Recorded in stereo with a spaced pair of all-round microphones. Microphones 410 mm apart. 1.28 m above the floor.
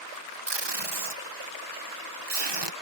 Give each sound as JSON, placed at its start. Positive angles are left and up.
{"t": 0.5, "sound": "tape being pulled", "side_deg": -80}